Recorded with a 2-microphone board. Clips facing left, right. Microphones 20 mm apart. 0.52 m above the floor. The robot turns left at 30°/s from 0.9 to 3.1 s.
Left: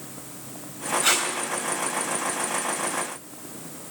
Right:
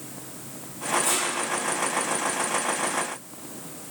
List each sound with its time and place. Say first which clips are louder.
1.0 s tape being pulled: left 8 dB; 60° left (ahead or behind), 3.5 m; by 1.3 s 55° left (ahead or behind), 3.5 m